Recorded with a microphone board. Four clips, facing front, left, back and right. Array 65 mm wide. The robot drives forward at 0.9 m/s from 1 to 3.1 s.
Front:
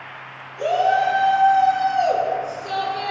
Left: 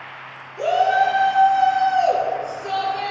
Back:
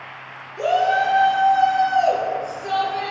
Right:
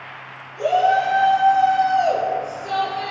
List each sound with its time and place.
0.6 s a shout: 150° left, 6.5 m; by 3.1 s 155° left, 8 m